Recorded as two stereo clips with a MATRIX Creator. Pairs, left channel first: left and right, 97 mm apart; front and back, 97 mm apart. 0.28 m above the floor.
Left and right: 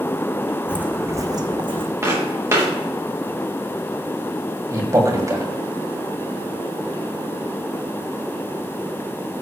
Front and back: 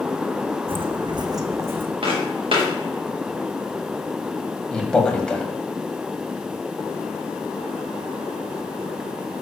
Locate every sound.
0.7 s footsteps: 170° right, 0.8 m; by 1.9 s 110° right, 0.9 m
2.0 s footsteps: 150° right, 5.5 m
4.7 s a man speaking: 75° right, 1.9 m